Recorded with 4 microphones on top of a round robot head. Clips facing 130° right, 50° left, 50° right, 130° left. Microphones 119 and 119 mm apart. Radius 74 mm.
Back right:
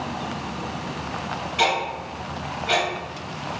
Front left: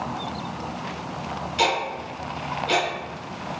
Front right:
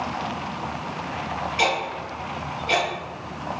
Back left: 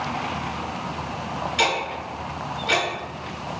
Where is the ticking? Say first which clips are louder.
Back right 1 dB, even; 105° left, 1.5 m.